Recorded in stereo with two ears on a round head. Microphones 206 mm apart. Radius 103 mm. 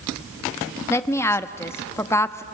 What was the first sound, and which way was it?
A woman speaking, 10° left (ahead or behind).